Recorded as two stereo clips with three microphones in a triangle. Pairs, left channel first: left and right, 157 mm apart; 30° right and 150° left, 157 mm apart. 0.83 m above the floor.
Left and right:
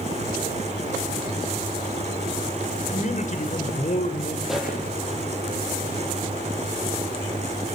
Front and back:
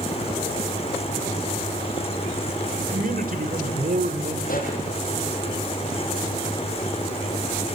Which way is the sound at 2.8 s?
125° left.